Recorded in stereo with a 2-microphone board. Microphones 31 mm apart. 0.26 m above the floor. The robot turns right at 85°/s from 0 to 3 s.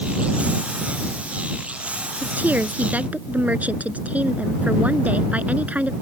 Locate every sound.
2.2 s a woman speaking: 125° right; by 5.9 s 55° right